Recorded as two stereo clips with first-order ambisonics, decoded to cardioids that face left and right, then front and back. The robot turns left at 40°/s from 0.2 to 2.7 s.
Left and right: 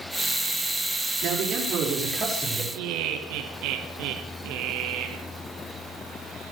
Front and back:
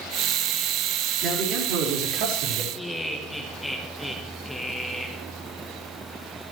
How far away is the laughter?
About 1.7 m.